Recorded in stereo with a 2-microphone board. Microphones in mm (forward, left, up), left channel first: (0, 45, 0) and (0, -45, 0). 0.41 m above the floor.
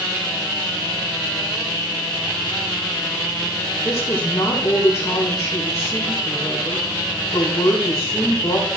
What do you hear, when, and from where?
3.8 s a woman speaking: 30° left (ahead or behind), 10 m